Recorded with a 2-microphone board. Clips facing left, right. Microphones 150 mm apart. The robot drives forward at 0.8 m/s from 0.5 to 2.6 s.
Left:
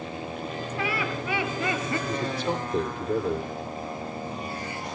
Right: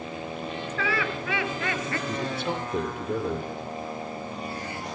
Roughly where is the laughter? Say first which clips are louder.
Right 1 dB; centre.